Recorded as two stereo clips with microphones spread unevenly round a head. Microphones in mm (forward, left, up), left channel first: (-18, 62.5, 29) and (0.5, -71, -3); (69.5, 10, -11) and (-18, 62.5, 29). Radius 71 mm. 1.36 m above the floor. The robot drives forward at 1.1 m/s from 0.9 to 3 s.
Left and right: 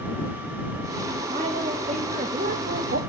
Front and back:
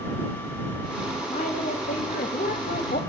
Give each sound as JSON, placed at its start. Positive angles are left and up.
{"t": 1.3, "sound": "a woman speaking", "azimuth_deg": -25, "distance_m": 2.5}